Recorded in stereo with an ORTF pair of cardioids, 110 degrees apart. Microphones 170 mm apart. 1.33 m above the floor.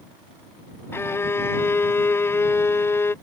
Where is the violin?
15° left.